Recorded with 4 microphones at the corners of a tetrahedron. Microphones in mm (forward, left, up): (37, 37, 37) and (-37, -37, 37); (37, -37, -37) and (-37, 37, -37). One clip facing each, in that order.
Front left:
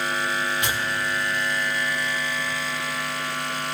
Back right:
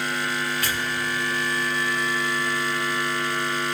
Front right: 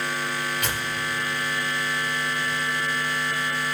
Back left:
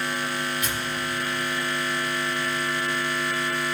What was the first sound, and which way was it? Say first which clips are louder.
Tearing paper: front left 1 dB, even; 25° right.